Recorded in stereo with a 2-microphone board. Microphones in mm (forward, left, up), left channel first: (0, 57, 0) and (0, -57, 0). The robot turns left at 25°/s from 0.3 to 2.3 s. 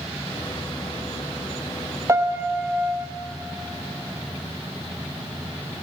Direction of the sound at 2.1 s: 25° right (ahead or behind).